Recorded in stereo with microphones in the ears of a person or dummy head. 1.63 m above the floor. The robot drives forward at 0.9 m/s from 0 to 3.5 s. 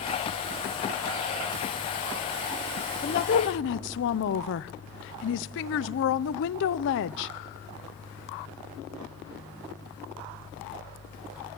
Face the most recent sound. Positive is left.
turn(degrees=65)  # may be behind; listen again after turning